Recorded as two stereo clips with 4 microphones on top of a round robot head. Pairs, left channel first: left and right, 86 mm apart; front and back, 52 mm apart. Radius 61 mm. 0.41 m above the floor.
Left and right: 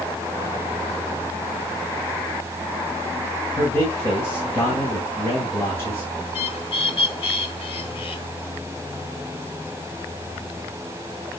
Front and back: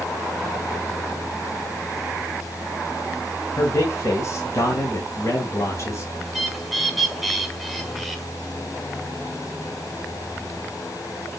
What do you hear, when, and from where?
3.6 s a man speaking: 25° left, 3.5 m
6.2 s a bird: 90° left, 3 m